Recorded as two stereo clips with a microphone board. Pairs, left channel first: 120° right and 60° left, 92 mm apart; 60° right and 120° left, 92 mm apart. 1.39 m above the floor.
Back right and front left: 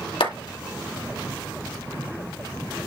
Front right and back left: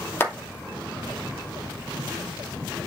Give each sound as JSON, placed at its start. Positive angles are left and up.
{"t": 0.2, "sound": "a clap", "azimuth_deg": -120, "distance_m": 2.5}